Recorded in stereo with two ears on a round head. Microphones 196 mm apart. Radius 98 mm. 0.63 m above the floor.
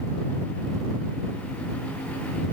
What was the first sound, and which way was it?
Only background noise.